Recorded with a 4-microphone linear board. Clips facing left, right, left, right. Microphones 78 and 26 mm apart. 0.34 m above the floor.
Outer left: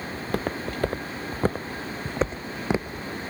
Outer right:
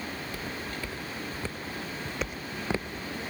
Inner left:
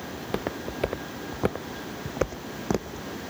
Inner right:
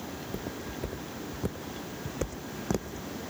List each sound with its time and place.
0.1 s footsteps: 60° left (ahead or behind); by 3.1 s 10° left (ahead or behind)